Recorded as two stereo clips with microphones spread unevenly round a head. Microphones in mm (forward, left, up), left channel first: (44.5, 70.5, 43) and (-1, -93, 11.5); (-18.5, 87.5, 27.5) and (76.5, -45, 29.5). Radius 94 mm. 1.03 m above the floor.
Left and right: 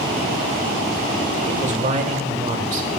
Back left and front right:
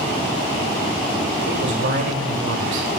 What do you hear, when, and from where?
1.5 s a man speaking: 65° right, 2 m